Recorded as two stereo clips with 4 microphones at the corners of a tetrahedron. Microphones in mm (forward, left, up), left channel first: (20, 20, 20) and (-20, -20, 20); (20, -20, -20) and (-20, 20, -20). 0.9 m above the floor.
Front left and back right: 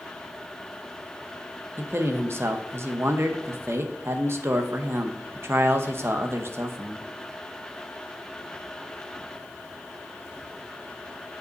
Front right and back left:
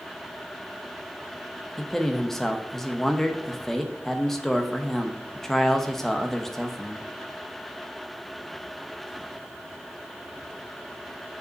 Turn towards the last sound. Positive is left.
turn(degrees=-130)